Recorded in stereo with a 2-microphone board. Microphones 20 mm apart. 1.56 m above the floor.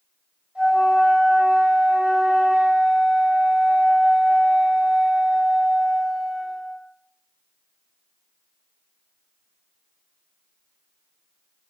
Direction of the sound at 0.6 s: 80° right.